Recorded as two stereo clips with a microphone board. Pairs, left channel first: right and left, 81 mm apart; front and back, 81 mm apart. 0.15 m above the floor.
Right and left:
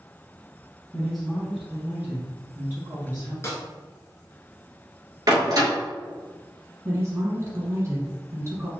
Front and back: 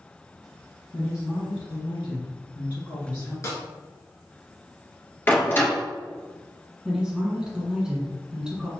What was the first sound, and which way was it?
A woman speaking, 10° right.